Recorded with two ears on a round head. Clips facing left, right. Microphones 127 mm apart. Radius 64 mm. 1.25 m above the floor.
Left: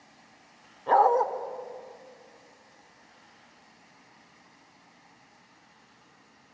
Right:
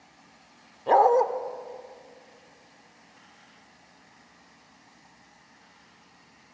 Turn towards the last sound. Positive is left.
turn(degrees=-25)  # may be behind; listen again after turning